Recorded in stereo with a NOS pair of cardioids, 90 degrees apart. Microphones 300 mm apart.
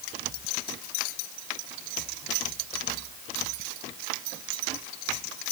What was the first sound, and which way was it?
Only background noise.